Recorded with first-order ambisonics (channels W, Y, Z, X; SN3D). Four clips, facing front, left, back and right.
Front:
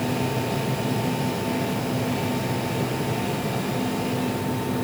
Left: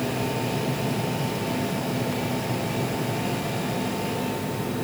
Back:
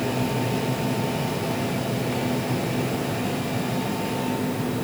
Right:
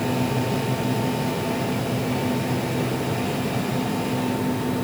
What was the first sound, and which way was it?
Only background noise.